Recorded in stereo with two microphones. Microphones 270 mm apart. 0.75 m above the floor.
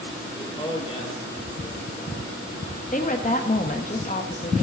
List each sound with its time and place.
0.3 s a man speaking: 15° left (ahead or behind), 2.5 m; by 2.5 s 40° left (ahead or behind), 2 m
2.9 s a woman speaking: 30° left (ahead or behind), 1.0 m